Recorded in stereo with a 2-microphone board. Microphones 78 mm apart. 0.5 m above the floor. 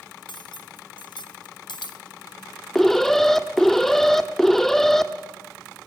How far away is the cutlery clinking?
About 1.3 m.